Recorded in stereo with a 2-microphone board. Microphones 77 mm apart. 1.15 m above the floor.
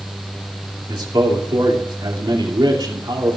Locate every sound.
0.9 s a man speaking: 85° right, 2.5 m